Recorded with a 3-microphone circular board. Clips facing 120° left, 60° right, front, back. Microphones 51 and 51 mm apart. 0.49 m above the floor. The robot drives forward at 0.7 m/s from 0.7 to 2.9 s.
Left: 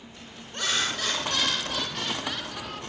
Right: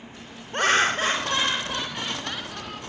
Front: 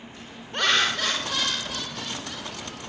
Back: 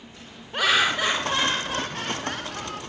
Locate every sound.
0.5 s laughter: 100° right, 1.2 m; by 2.8 s 150° right, 2.0 m